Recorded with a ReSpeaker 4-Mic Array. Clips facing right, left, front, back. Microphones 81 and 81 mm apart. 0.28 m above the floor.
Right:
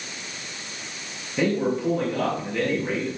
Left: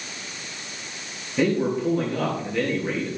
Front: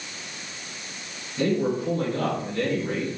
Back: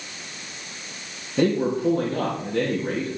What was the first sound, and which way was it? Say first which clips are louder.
A man speaking: left 1 dB, back 3 dB; straight behind.